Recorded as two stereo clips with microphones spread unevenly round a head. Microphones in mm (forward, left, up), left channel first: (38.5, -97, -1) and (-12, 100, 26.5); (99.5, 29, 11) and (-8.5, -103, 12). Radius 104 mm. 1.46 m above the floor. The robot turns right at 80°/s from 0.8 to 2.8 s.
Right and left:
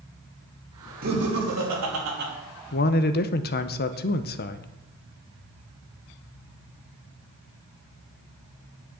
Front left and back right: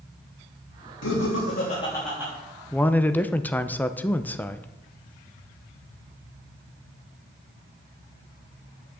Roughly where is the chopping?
No chopping in this recording.